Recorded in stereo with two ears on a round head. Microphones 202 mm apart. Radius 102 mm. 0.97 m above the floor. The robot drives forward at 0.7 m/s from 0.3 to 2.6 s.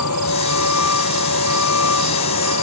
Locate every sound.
0.0 s a vehicle: 80° left; by 2.6 s 75° left (ahead or behind)